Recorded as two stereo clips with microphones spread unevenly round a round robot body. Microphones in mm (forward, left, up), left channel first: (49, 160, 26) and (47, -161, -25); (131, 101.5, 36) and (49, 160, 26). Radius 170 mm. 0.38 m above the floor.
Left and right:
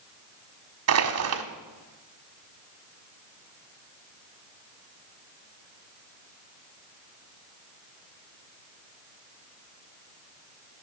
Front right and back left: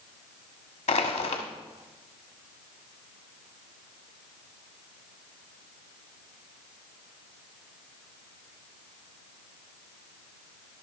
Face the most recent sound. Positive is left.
turn(degrees=-50)